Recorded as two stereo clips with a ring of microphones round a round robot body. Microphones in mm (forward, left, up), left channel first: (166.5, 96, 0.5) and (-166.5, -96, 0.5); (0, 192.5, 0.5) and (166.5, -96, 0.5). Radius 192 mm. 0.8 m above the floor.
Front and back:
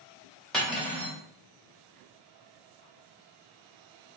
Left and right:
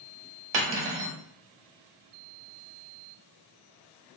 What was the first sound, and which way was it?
Cutlery clinking, 60° right.